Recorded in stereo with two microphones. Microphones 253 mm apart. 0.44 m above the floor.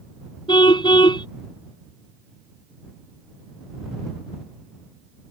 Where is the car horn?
20° left (ahead or behind).